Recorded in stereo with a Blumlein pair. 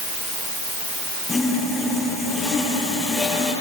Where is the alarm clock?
No alarm clock in this recording.